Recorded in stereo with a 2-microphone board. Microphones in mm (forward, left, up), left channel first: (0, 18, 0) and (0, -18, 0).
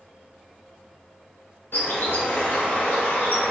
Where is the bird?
75° left (ahead or behind), 1.5 m.